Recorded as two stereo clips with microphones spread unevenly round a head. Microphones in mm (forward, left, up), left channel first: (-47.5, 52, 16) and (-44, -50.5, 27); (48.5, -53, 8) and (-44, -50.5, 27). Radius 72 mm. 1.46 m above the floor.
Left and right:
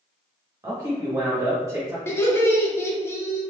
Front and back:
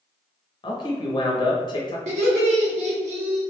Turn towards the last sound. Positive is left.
turn(degrees=160)